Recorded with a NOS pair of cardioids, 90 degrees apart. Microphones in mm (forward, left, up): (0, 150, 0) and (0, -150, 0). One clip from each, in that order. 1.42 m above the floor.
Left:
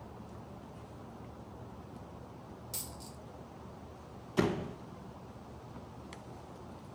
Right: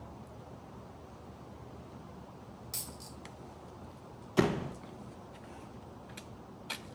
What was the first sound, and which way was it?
A dropped coin, 15° right.